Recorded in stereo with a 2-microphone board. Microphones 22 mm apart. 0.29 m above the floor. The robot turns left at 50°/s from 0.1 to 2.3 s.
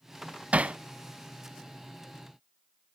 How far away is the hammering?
About 0.5 m.